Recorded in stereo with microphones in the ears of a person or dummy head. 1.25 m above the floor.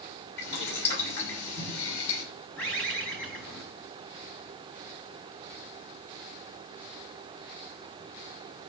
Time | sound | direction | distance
0.4 | boiling | 60° left (ahead or behind) | 7.5 m
2.6 | a bird | 5° left (ahead or behind) | 4 m